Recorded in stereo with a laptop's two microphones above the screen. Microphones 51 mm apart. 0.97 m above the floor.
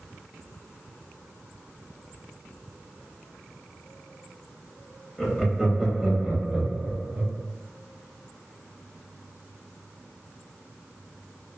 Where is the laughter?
10° left (ahead or behind), 1.7 m; by 7.3 s 25° right (ahead or behind), 1.1 m.